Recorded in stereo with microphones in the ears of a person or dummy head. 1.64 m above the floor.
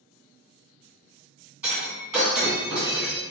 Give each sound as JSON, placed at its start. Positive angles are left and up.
{"t": 1.6, "sound": "breaking glass", "side_deg": -10, "distance_m": 1.6}